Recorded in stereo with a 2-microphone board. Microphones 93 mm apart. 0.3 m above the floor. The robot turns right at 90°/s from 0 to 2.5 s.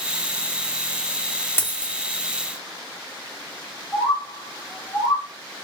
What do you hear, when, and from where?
1.6 s a dropped coin: 25° left (ahead or behind), 0.6 m; by 1.9 s centre (ahead or behind), 0.6 m
3.9 s a bird: 30° left (ahead or behind), 1.4 m